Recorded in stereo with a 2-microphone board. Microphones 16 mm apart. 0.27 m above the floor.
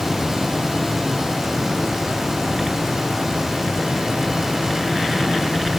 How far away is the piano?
No piano in this recording.